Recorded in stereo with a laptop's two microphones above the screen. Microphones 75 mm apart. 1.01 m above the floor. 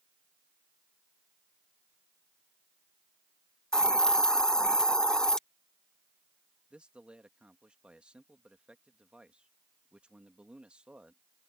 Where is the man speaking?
15° right (ahead or behind).